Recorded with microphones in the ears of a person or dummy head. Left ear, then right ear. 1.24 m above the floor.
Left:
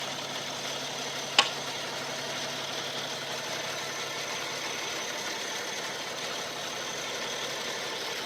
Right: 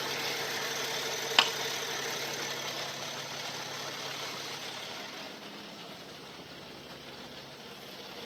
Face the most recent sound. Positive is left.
turn(degrees=0)  # may be behind; listen again after turning